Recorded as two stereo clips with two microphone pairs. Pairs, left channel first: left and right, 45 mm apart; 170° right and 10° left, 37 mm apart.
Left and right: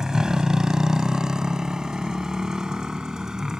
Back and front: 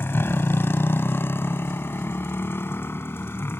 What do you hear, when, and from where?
0.0 s a motorcycle: 165° right